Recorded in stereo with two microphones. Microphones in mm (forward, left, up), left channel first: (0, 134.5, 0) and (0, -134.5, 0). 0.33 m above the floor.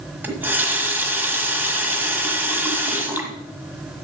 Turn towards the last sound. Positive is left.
turn(degrees=-5)  # may be behind; listen again after turning